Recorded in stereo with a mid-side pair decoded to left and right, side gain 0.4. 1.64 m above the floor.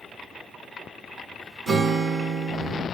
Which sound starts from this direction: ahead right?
A guitar, at 1.7 s.